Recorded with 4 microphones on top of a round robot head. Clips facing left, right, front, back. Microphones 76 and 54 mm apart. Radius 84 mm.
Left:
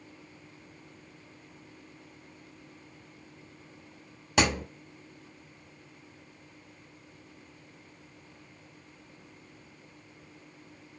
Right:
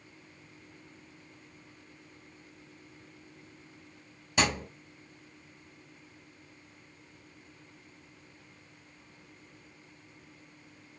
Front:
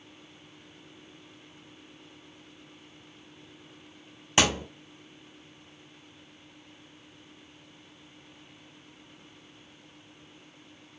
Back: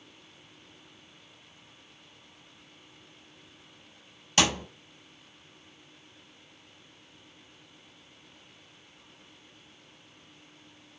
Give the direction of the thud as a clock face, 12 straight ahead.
10 o'clock.